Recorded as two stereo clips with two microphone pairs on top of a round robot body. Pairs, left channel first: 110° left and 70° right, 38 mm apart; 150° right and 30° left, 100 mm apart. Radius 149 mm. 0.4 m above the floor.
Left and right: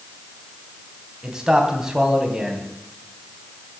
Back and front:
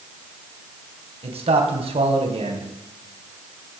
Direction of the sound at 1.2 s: 5° left.